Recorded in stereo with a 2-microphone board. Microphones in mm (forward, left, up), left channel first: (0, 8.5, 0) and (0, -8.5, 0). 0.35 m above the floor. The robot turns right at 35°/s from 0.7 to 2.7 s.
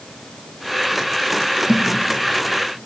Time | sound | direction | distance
1.7 | a thud | 40° right (ahead or behind) | 4.5 m